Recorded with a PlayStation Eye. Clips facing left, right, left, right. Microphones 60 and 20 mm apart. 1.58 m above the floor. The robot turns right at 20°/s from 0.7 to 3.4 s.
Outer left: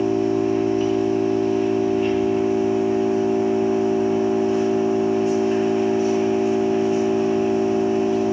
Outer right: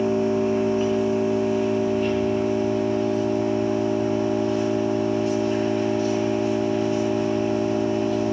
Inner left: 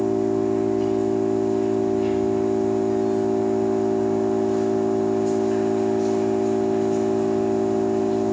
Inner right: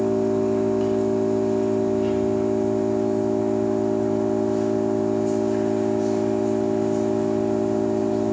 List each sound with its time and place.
0.0 s an engine running: 25° right, 4 m; by 8.3 s 25° left, 4 m